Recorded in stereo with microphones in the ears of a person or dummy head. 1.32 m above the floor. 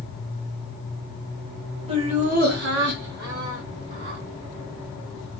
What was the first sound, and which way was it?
Laughter, 25° right (ahead or behind).